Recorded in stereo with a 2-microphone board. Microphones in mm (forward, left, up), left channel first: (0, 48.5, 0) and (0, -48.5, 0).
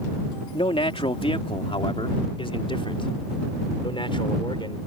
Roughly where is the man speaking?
Left.